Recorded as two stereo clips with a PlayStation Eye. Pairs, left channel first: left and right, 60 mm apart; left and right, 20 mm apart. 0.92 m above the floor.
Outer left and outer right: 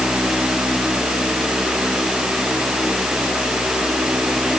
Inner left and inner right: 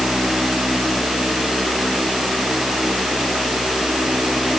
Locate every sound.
Only background noise.